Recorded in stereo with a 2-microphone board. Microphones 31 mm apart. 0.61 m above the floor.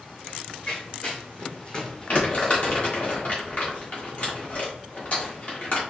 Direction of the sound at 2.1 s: 40° left (ahead or behind).